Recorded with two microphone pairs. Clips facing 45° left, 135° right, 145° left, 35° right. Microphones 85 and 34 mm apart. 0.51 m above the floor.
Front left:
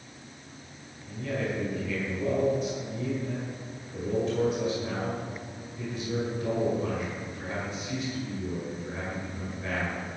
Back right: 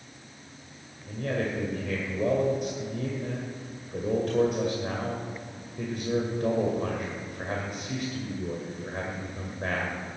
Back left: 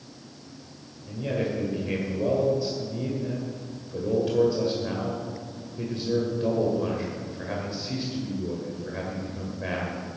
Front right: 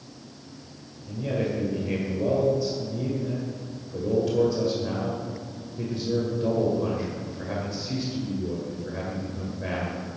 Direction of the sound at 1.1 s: 145° right.